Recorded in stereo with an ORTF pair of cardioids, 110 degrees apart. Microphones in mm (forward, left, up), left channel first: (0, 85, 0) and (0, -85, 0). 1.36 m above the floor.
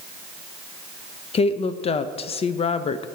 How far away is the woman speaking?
About 0.9 m.